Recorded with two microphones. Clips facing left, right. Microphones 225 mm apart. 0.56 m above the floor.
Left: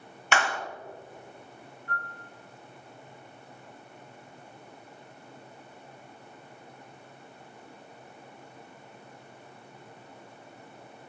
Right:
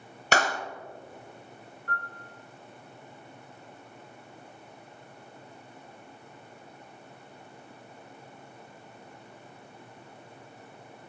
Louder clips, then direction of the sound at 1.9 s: Right 1 dB; 60° right (ahead or behind).